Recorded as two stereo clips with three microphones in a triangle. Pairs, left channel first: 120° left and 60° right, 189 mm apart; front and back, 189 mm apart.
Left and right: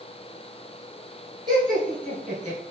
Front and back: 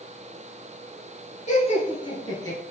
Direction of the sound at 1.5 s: 5° right.